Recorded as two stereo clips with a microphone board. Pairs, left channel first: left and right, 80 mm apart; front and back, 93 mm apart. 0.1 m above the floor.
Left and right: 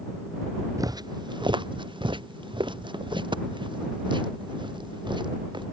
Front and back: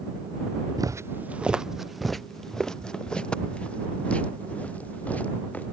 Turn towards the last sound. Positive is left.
turn(degrees=-75)